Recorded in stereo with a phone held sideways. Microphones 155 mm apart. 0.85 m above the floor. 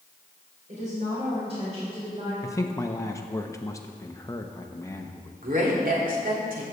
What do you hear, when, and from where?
0.7 s a woman speaking: 50° right (ahead or behind), 4 m; by 2.3 s 35° right (ahead or behind), 5 m
2.4 s a man speaking: 20° left (ahead or behind), 0.6 m
5.4 s a woman speaking: 65° right (ahead or behind), 2.5 m